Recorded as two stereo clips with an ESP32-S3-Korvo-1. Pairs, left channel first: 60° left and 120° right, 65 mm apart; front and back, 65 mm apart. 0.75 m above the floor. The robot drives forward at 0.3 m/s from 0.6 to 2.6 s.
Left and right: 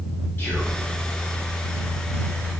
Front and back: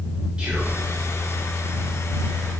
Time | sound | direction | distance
0.4 | whispering | 110° left | 1.6 m